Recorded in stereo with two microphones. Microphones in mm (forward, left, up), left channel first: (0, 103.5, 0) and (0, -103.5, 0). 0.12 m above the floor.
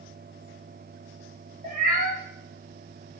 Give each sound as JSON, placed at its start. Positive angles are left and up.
{"t": 1.6, "sound": "a cat meowing", "side_deg": -45, "distance_m": 1.2}